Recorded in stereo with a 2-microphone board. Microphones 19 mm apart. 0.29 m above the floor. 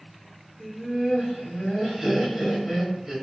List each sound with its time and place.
0.6 s laughter: 25° right (ahead or behind), 1.3 m